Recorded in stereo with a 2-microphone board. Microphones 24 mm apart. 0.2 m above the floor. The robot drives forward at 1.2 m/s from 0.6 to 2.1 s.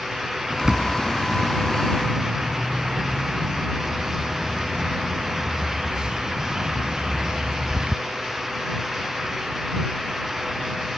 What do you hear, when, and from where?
0.5 s a bird: 30° right (ahead or behind); by 8.0 s 35° right (ahead or behind)